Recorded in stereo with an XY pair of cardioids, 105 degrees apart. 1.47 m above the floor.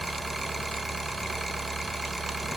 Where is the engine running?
10° right, 1.0 m.